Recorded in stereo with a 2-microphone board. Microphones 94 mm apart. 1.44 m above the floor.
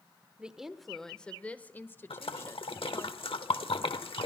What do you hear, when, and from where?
0.4 s a woman speaking: 10° right (ahead or behind), 1.0 m; by 3.1 s 35° left (ahead or behind), 1.9 m
2.1 s a splash: 85° left, 1.1 m